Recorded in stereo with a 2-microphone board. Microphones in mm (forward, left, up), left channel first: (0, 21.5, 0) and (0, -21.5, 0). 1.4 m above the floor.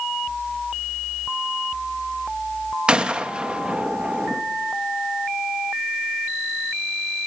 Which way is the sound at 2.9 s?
25° right (ahead or behind).